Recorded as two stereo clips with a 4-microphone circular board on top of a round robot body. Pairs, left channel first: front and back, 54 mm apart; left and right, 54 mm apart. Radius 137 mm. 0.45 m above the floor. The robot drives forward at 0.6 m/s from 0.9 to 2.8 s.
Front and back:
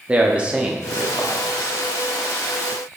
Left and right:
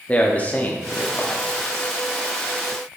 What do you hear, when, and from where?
0.1 s a man speaking: 130° left, 1.2 m; by 1.4 s 145° left, 1.3 m